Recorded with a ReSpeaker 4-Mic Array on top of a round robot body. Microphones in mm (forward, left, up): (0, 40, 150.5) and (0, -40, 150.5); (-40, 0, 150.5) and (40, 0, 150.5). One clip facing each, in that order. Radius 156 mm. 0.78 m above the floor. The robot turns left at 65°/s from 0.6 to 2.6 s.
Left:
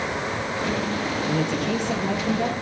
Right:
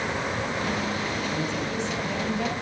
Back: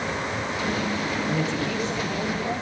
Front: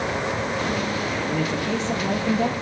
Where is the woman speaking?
95° left, 6.5 m; by 2.6 s 10° left, 6.5 m.